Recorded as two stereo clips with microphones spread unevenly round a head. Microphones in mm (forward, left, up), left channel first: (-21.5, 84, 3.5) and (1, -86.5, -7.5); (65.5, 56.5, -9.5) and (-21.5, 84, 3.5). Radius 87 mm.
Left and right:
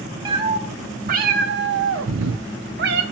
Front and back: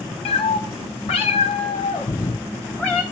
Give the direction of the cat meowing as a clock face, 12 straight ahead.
1 o'clock.